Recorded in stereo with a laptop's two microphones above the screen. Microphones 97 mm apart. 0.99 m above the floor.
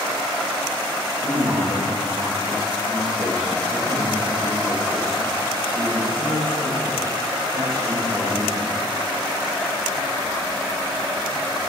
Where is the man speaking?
40° right (ahead or behind), 1.5 m.